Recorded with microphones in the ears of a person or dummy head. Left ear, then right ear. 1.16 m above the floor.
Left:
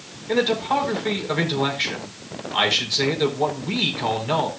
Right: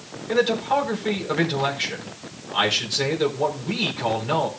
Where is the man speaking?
5° left (ahead or behind), 4.5 m.